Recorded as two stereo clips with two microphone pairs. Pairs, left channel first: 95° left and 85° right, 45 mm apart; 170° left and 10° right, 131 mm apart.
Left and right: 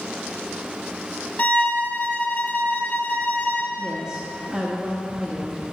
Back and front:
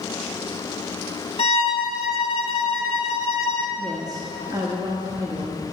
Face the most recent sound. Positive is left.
turn(degrees=-35)